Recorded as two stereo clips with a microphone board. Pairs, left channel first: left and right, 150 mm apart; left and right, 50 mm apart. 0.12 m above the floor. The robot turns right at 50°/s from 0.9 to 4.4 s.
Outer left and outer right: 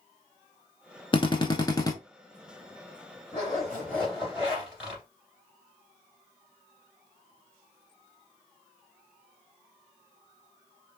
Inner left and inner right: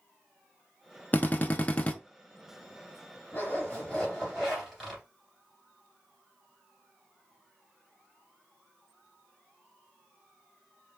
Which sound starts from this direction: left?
A drill, at 1.1 s.